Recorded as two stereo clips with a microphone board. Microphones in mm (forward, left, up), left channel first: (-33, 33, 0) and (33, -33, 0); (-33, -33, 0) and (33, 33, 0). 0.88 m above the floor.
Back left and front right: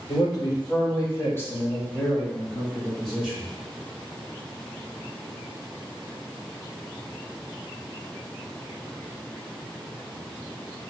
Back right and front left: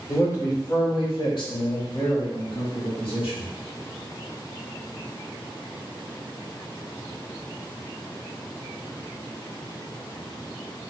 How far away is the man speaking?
About 1.4 m.